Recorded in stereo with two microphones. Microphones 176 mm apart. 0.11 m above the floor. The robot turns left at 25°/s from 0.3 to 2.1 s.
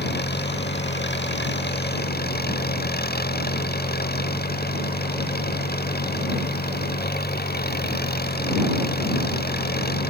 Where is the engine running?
110° left; by 10.1 s 65° left.